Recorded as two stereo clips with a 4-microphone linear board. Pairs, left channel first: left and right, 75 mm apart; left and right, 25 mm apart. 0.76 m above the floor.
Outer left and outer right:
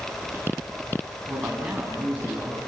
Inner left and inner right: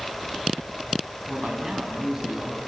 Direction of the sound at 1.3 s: 20° right (ahead or behind).